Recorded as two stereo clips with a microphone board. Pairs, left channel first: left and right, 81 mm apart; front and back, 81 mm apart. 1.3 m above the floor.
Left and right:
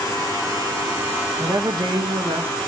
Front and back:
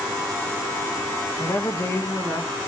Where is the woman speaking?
50° right, 1.4 m; by 2.5 s 65° right, 2.0 m.